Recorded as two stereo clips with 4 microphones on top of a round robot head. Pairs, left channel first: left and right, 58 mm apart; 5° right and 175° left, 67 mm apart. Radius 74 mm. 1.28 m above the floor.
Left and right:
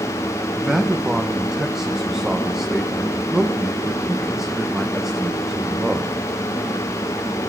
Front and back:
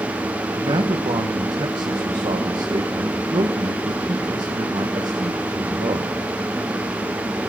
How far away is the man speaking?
About 1.3 m.